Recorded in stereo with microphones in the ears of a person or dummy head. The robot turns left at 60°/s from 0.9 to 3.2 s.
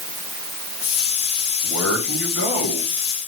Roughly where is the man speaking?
Centre.